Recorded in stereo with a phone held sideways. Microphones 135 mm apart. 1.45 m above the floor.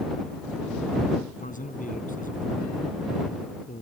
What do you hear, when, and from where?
1.4 s a man speaking: 75° left (ahead or behind)